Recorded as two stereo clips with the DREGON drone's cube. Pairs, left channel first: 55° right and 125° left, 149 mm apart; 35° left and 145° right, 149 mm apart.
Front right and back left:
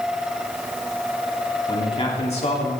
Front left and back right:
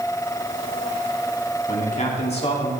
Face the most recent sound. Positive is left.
turn(degrees=-20)